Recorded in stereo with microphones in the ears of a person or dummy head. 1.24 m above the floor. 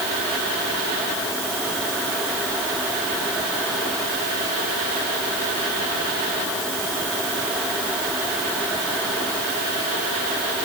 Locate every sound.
Only background noise.